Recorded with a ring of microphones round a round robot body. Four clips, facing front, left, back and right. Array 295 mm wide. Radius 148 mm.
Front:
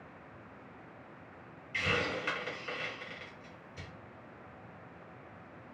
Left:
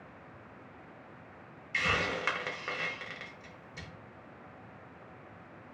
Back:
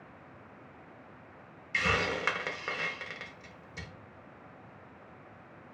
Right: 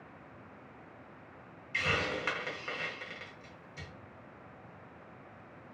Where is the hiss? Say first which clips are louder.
Left 1 dB, back 3 dB; 155° left, 0.7 m.